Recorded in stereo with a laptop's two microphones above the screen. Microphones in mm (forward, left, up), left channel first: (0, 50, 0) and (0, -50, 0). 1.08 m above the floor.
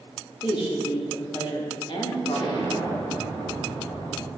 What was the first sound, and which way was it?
A woman speaking, 55° left (ahead or behind).